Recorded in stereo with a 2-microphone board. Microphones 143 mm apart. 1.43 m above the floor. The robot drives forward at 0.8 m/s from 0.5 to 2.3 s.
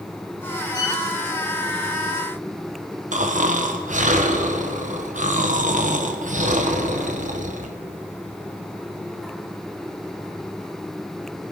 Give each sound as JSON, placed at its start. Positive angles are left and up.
{"t": 0.7, "sound": "a violin", "side_deg": 25, "distance_m": 4.5}
{"t": 3.1, "sound": "snoring", "side_deg": -65, "distance_m": 1.0}